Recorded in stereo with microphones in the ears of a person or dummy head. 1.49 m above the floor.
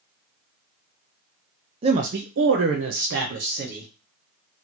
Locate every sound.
1.8 s a man speaking: 30° right (ahead or behind), 0.5 m; by 3.9 s 50° right (ahead or behind), 1.1 m